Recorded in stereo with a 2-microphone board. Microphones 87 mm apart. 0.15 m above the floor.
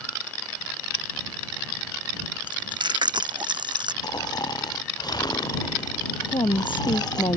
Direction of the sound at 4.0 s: 50° left (ahead or behind).